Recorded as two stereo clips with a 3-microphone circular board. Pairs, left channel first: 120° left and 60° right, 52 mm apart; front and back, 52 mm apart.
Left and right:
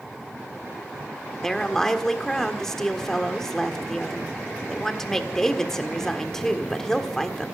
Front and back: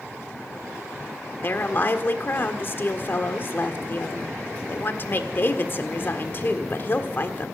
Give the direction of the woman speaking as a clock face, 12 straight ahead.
11 o'clock.